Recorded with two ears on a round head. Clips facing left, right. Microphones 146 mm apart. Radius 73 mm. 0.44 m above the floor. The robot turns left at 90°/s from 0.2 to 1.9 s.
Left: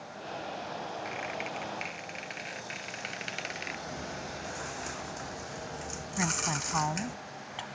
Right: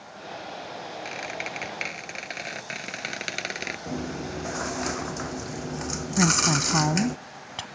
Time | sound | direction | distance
1.1 | a squeak | 35° right | ?
3.9 | chewing | 75° right (ahead or behind) | ?
6.2 | a woman speaking | 55° right (ahead or behind) | ?